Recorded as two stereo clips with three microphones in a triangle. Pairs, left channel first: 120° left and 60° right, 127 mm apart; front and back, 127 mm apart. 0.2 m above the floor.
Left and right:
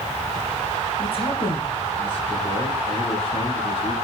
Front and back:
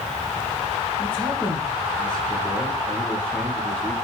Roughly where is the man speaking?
Left.